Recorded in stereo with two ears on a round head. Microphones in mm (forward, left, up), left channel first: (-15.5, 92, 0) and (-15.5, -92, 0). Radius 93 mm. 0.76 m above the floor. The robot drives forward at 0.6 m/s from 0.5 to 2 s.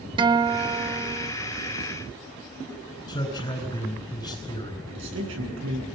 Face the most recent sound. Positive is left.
turn(degrees=-65)  # may be behind; listen again after turning